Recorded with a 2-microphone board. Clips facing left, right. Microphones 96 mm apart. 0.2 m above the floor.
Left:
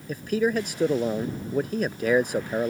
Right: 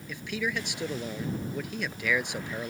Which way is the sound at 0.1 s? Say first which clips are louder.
Left 9 dB; 40° left (ahead or behind).